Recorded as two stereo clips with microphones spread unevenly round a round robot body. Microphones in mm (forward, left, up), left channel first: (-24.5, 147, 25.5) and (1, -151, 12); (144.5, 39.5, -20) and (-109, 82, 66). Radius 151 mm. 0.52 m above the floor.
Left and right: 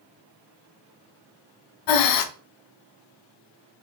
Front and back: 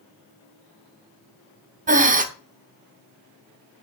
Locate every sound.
1.9 s breathing: 100° left, 0.7 m